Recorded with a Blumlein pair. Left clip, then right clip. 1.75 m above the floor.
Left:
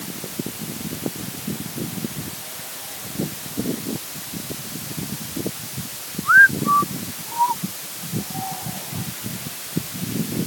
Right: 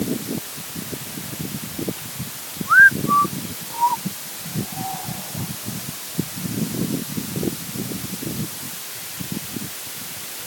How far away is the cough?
No cough in this recording.